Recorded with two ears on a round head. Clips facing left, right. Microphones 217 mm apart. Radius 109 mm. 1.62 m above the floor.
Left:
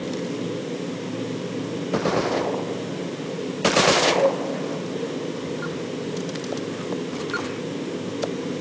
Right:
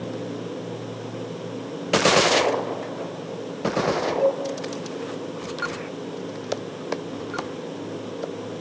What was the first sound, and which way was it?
A cowbell, 25° left (ahead or behind).